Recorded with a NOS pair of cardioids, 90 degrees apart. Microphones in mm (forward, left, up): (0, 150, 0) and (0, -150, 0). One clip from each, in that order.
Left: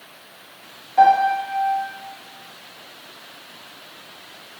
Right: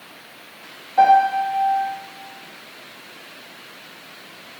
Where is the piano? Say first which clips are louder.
Right 1 dB; 5° left, 1.3 m.